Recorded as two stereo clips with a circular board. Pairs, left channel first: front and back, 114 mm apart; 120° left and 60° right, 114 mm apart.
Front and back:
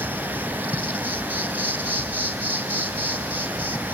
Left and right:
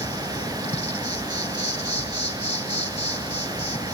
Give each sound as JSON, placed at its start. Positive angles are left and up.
{"t": 0.0, "sound": "an insect", "azimuth_deg": 105, "distance_m": 3.0}